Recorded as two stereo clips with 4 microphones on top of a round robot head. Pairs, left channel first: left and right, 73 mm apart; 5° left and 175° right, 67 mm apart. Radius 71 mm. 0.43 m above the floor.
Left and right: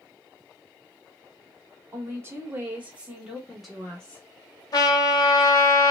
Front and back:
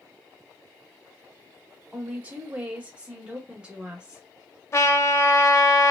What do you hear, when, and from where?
1.9 s a woman speaking: 110° right, 1.5 m; by 4.2 s 130° left, 1.3 m
4.7 s a trumpet: 55° left, 0.7 m